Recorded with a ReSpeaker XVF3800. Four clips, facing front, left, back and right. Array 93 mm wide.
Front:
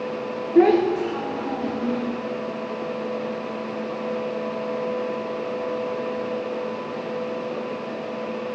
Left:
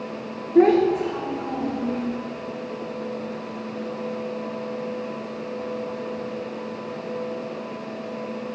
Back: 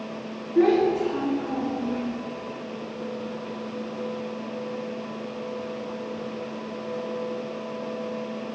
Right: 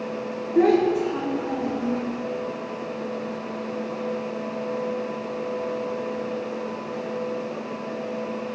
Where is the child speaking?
35° left, 0.8 m.